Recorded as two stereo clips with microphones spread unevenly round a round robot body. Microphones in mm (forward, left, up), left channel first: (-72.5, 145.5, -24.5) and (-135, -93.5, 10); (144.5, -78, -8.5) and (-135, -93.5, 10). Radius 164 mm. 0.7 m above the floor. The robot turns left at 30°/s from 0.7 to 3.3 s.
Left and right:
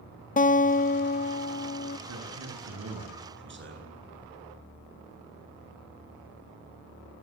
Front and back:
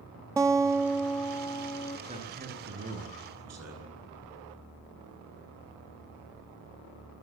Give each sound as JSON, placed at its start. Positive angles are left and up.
{"t": 0.4, "sound": "a guitar", "azimuth_deg": 100, "distance_m": 1.2}
{"t": 2.1, "sound": "a man speaking", "azimuth_deg": -110, "distance_m": 10.0}